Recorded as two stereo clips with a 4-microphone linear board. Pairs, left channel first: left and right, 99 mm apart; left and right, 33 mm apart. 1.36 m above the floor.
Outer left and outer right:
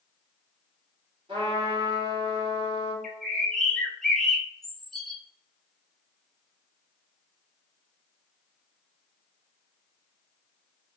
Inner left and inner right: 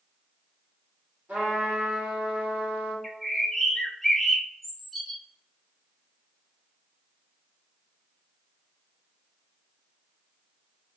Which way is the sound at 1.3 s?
70° right (ahead or behind).